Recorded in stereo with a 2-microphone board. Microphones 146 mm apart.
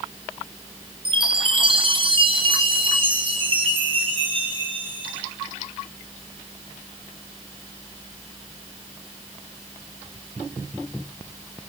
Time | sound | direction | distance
1.1 | a chime | 40° right (ahead or behind) | 5 m